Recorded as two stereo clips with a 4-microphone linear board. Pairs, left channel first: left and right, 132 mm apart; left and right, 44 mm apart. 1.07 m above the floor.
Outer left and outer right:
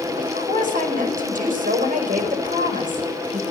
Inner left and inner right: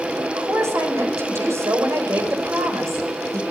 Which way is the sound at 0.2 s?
80° right.